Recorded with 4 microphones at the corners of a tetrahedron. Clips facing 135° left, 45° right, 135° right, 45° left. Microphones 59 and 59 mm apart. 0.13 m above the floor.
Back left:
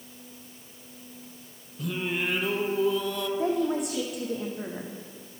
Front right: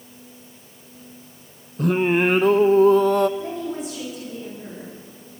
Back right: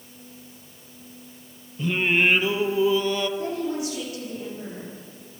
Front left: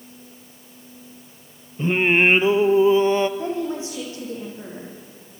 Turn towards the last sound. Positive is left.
turn(degrees=105)